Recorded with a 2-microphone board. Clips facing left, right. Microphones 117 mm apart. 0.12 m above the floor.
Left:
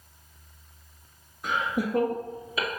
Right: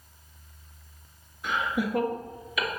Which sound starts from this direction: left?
Laughter, at 1.4 s.